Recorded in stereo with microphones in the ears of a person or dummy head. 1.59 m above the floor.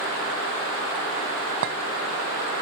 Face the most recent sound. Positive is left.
turn(degrees=-55)  # may be behind; listen again after turning